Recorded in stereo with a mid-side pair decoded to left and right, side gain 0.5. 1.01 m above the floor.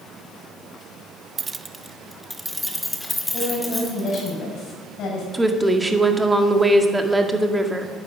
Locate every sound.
1.4 s keys jangling: 35° right, 0.5 m; by 4.3 s 20° left, 3.5 m
3.3 s a woman speaking: 65° left, 6.5 m
5.3 s a woman speaking: 10° right, 1.9 m